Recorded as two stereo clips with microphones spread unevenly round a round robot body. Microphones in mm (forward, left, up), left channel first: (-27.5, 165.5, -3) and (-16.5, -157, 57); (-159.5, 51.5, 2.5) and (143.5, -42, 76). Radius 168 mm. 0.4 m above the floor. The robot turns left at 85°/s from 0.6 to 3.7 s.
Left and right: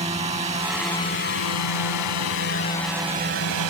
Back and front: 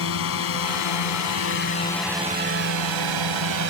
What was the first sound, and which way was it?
A drone, 160° right.